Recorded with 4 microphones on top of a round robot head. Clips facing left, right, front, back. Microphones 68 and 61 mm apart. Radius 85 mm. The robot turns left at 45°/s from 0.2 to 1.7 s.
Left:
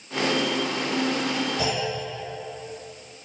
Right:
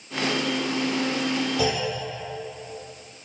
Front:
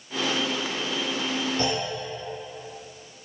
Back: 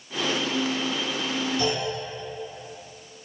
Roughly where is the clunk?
Ahead right.